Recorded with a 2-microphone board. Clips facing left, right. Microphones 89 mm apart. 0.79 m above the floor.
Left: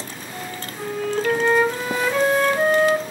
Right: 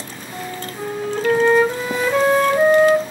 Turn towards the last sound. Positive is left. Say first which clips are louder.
# right 4 dB
turn(degrees=-30)  # may be behind; listen again after turning